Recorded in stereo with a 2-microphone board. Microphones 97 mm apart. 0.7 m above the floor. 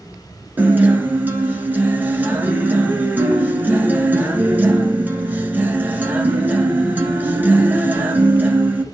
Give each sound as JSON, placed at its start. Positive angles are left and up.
{"t": 0.6, "sound": "a guitar", "side_deg": -20, "distance_m": 1.4}